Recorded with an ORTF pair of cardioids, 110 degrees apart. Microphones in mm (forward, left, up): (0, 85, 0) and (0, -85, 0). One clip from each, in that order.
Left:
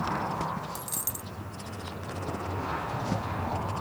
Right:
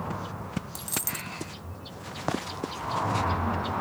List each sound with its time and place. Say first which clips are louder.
0.8 s a dropped coin: right 3 dB; 15° right